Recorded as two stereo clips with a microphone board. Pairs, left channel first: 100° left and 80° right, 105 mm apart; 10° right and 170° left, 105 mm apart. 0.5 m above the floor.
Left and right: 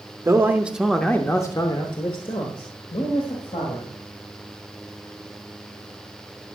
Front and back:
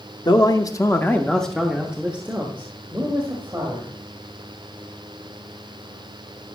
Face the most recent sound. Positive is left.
turn(degrees=110)